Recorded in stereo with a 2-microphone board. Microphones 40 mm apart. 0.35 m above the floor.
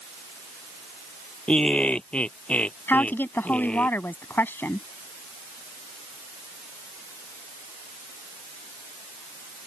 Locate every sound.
1.5 s laughter: 30° left (ahead or behind); by 3.9 s 35° left (ahead or behind)
2.9 s a woman speaking: 60° left (ahead or behind)